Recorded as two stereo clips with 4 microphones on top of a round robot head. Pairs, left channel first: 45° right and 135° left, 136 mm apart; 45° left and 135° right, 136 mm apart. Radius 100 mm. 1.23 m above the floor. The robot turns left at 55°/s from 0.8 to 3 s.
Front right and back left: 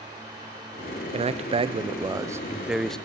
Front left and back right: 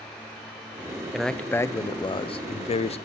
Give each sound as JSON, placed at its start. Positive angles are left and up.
{"t": 1.1, "sound": "a man speaking", "azimuth_deg": 140, "distance_m": 0.7}